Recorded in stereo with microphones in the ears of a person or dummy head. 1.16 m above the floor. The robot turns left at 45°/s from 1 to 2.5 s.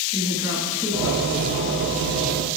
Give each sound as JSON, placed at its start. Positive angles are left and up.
{"t": 0.1, "sound": "a woman speaking", "side_deg": 20, "distance_m": 9.5}